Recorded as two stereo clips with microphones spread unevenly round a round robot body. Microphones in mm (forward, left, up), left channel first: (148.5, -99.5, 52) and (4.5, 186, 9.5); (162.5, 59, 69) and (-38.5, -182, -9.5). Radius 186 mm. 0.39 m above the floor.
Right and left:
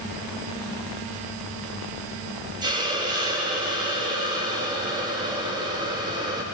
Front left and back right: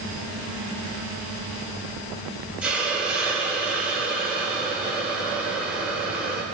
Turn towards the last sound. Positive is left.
turn(degrees=170)